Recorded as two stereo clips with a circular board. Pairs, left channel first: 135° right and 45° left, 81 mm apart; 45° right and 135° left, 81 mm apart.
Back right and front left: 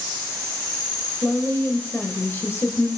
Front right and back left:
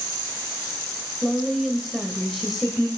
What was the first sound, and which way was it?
A woman speaking, 130° right.